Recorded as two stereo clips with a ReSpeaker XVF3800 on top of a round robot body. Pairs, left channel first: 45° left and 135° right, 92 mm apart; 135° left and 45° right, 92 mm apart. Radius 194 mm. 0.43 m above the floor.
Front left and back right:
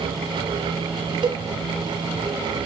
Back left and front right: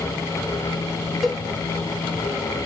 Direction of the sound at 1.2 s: 135° right.